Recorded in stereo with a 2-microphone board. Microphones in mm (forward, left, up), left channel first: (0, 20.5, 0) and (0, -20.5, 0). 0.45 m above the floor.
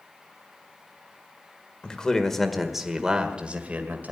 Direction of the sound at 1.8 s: 20° left (ahead or behind).